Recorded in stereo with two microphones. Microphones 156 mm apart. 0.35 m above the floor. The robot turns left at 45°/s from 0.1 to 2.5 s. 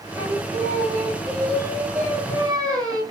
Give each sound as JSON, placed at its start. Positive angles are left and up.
{"t": 0.1, "sound": "singing", "azimuth_deg": -15, "distance_m": 1.6}